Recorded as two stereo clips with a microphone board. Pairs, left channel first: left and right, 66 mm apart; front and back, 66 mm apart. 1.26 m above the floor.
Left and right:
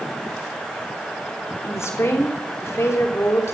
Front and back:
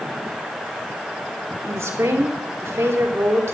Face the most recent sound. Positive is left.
turn(degrees=135)